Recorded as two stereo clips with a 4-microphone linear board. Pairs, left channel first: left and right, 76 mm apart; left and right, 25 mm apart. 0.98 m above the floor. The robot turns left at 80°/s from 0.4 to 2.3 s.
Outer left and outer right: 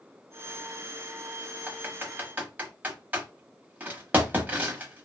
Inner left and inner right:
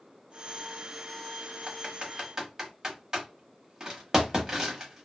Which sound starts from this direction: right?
Typing on a keyboard, at 1.7 s.